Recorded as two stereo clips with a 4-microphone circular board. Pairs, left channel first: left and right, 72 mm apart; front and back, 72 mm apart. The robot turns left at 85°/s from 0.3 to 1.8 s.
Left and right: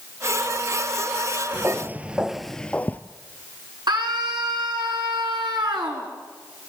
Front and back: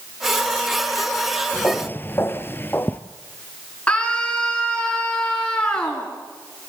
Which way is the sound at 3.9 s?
75° right.